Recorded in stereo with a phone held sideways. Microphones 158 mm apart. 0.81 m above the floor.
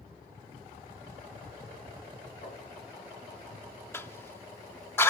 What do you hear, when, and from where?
2.4 s tapping: 55° left (ahead or behind), 5.5 m
3.9 s a cough: 15° left (ahead or behind), 1.6 m